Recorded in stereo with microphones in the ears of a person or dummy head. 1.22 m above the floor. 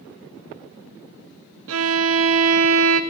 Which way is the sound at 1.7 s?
65° right (ahead or behind).